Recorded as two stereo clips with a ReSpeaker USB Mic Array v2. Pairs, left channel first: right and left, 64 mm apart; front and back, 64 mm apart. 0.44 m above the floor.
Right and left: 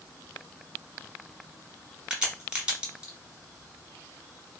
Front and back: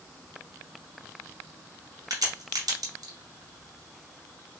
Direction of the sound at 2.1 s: 165° left.